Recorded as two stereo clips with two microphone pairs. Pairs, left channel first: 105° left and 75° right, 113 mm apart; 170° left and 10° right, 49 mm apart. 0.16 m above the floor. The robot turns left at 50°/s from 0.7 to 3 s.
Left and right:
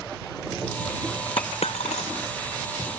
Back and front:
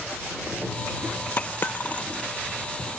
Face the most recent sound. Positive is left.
turn(degrees=60)